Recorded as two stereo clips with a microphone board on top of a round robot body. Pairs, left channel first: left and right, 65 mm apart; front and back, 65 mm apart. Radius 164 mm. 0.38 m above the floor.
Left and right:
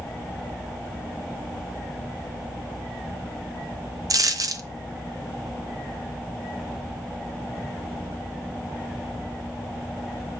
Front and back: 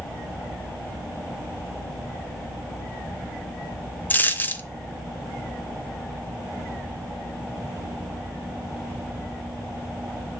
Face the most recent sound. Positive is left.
turn(degrees=-60)